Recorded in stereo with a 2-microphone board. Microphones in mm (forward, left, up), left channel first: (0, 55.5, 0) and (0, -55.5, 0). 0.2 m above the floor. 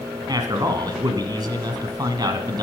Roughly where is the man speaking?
Right.